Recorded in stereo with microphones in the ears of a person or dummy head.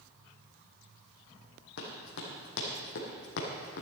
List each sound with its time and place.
1.8 s running footsteps: 55° left (ahead or behind), 3.5 m; by 3.8 s 60° left (ahead or behind), 3.5 m